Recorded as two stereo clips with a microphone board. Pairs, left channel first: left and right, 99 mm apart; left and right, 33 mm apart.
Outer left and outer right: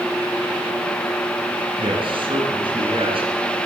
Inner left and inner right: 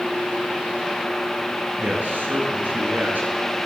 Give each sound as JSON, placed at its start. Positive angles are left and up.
{"t": 1.8, "sound": "a man speaking", "side_deg": -60, "distance_m": 8.5}